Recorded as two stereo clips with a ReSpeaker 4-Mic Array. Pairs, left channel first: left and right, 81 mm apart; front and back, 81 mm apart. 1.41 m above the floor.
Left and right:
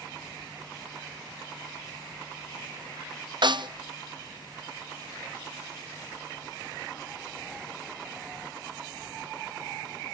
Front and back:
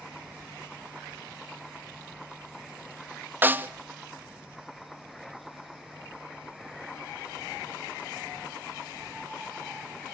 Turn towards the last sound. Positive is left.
turn(degrees=-115)